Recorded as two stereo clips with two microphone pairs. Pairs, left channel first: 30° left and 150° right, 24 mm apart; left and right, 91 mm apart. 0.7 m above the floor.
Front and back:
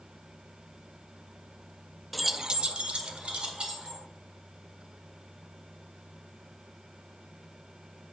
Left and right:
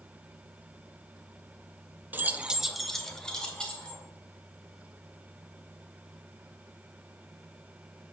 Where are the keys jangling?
50° right, 0.5 m; by 4.0 s 170° left, 2.0 m.